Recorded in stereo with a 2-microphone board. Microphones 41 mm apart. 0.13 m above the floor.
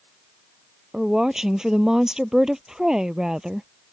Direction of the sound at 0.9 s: 20° right (ahead or behind).